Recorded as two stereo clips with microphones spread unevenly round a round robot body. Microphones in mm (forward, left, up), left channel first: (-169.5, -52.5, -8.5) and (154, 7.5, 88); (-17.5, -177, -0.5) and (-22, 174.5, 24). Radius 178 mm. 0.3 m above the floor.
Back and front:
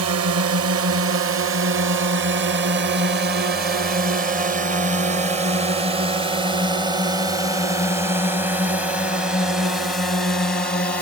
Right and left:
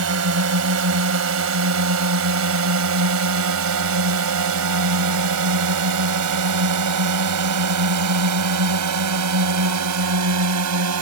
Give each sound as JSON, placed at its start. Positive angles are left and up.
{"t": 0.0, "sound": "a drone", "azimuth_deg": 55}